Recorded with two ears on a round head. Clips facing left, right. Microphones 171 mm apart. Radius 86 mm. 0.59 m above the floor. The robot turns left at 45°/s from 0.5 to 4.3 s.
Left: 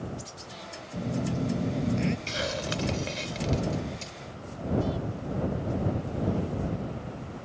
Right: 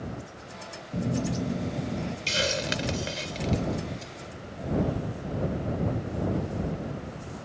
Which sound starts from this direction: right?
A hiss, at 2.3 s.